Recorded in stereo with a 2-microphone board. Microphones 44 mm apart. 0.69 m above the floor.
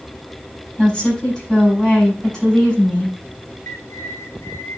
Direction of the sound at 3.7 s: 80° left.